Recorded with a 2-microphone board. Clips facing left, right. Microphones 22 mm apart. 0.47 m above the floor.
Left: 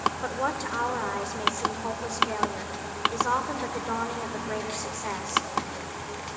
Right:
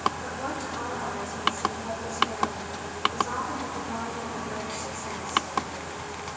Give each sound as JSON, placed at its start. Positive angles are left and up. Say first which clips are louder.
{"t": 0.2, "sound": "a woman speaking", "louder": "left 3 dB", "side_deg": 50, "distance_m": 1.3}